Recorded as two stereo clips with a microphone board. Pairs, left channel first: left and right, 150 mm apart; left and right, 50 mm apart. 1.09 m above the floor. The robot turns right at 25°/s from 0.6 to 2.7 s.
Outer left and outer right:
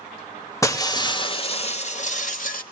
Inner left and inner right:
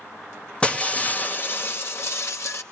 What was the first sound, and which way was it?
Breaking glass, 20° left.